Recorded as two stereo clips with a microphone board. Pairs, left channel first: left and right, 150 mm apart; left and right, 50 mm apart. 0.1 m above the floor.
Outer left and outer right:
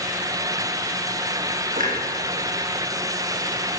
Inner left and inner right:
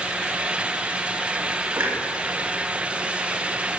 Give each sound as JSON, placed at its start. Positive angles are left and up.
{"t": 1.8, "sound": "a clunk", "side_deg": -65, "distance_m": 7.5}